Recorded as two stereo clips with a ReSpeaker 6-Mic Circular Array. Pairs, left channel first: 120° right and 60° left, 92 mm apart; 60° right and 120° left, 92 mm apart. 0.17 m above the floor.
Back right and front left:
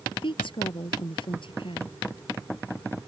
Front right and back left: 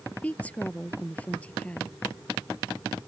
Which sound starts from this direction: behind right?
A woman speaking, at 0.2 s.